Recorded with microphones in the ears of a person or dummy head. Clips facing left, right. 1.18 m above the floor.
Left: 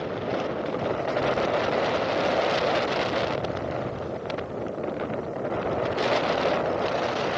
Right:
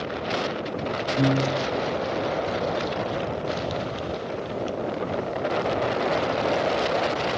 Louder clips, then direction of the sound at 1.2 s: Right 4 dB; 65° right (ahead or behind).